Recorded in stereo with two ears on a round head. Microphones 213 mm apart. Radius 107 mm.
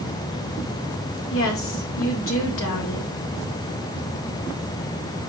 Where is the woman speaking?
60° left (ahead or behind), 1.9 m.